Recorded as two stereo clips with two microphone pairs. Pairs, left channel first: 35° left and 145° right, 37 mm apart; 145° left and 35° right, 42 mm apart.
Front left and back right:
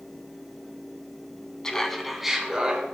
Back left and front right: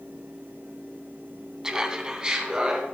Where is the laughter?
5° left, 1.0 m; by 2.9 s 95° right, 1.4 m.